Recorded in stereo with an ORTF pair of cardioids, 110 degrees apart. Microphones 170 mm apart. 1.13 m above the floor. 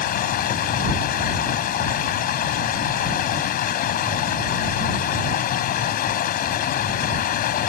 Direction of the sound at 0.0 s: 60° left.